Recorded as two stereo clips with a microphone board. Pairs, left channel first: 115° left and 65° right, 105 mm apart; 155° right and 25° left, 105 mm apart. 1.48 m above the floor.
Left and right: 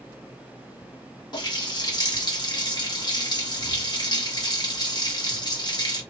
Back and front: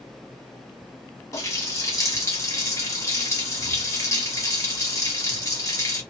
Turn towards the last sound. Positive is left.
turn(degrees=150)